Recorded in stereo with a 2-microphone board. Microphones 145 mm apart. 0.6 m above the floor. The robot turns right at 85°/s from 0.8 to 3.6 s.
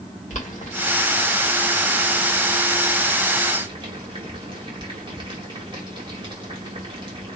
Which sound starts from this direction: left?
Boiling, at 0.3 s.